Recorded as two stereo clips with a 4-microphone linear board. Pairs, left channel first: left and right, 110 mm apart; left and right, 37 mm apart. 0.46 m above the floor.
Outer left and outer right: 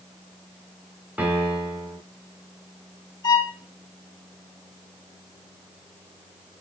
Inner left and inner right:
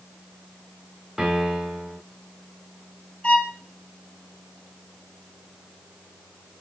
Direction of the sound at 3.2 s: 35° left (ahead or behind).